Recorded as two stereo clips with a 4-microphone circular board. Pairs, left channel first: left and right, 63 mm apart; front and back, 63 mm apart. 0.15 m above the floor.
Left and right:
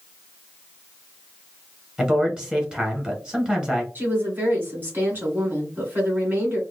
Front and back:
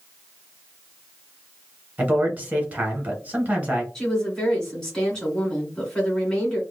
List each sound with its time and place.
2.0 s a man speaking: 150° right, 1.3 m
4.0 s a woman speaking: 70° right, 1.8 m